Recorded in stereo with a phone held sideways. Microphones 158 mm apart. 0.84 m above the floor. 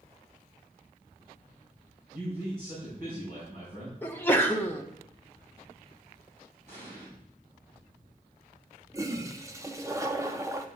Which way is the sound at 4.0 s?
15° left (ahead or behind).